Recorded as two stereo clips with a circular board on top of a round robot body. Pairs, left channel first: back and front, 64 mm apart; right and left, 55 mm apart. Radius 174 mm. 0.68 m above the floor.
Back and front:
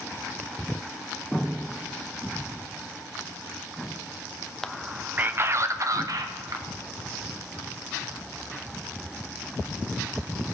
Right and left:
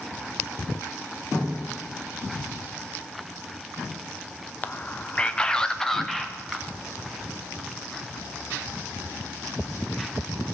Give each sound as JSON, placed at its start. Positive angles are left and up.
{"t": 4.6, "sound": "a man speaking", "azimuth_deg": -100, "distance_m": 1.0}